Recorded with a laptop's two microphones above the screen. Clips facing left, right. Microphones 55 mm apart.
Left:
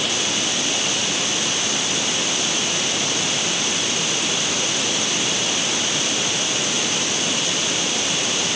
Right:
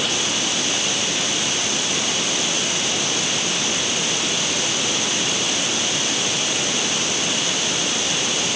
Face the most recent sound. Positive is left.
No sound to turn to.